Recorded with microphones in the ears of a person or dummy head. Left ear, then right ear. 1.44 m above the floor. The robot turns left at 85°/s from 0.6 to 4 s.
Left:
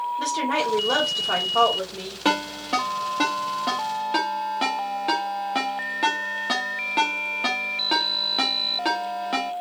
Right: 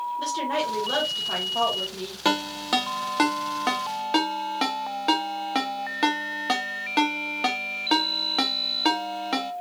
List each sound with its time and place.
0.2 s a woman speaking: 120° left, 1.6 m; by 2.1 s 10° right, 1.6 m
2.2 s a ringtone: 10° right (ahead or behind), 0.7 m; by 9.5 s 15° right (ahead or behind), 0.7 m